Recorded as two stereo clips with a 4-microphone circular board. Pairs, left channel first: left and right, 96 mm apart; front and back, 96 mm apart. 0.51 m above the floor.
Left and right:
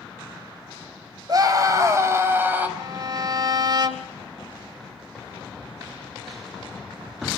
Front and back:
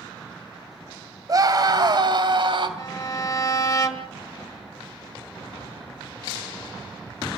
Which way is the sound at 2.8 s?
50° right.